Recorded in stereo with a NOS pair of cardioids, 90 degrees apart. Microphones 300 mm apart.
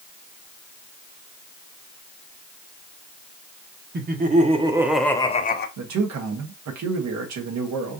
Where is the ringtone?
No ringtone in this recording.